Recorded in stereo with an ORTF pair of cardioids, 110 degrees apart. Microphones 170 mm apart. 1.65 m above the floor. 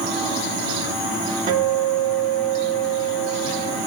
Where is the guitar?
50° right, 2.5 m.